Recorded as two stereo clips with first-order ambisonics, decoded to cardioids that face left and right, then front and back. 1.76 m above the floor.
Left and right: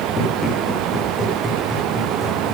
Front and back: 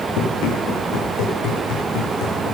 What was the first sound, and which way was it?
Running footsteps, 20° left.